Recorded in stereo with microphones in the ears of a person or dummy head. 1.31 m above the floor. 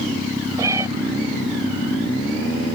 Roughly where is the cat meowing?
Centre.